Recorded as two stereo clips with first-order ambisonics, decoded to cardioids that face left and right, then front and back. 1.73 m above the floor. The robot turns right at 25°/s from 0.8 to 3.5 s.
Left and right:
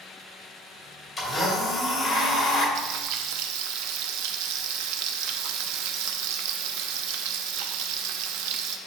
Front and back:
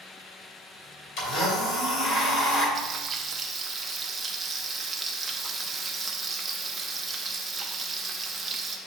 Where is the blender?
5° left, 2 m; by 2.6 s 45° left, 2 m.